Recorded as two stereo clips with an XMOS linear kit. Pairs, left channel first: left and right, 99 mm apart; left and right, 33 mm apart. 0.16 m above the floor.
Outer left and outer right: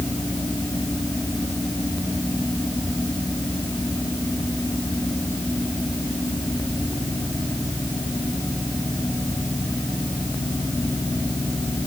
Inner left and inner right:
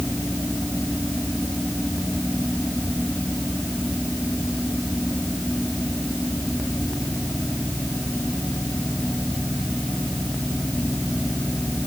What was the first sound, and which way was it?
Only background noise.